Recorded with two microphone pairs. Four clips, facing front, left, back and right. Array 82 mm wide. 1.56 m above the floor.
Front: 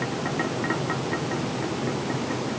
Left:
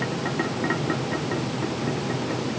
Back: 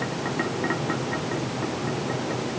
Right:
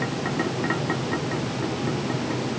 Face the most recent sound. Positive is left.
No sound to turn to.